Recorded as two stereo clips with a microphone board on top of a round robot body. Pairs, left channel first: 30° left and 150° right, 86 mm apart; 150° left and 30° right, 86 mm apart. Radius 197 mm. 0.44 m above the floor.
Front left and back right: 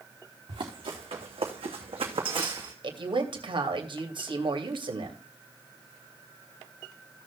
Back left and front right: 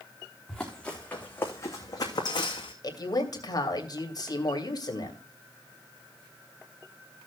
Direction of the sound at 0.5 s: 125° right.